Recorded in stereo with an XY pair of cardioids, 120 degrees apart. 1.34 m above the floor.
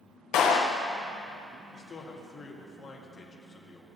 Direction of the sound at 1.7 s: 30° left.